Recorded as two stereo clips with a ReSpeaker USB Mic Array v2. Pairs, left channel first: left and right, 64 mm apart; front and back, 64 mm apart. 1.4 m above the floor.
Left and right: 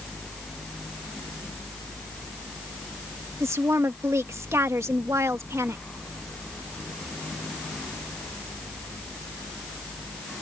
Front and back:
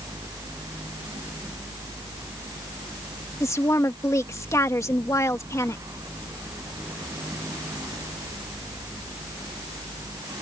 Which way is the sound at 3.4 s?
40° right.